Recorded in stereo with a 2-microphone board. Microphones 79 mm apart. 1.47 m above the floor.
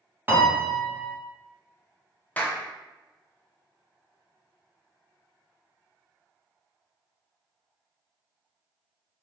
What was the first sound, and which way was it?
A piano, 25° right (ahead or behind).